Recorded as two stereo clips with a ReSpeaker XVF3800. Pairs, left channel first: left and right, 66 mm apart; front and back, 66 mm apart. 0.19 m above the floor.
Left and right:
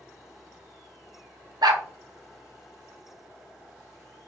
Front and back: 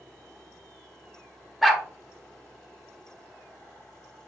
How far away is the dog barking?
About 0.7 m.